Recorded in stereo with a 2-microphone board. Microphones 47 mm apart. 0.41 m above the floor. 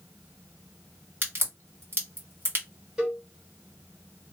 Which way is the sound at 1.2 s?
45° right (ahead or behind).